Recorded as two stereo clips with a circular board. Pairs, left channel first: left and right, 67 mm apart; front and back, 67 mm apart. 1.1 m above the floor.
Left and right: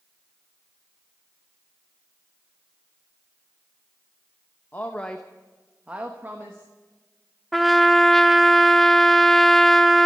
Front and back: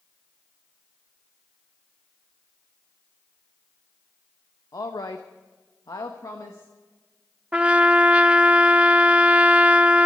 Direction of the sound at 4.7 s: 30° left.